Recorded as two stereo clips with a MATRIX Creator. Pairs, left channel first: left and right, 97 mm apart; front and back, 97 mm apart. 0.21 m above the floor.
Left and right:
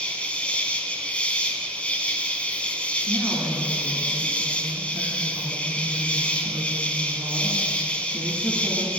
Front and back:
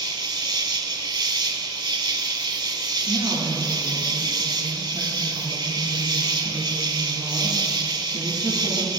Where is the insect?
160° left, 0.8 m.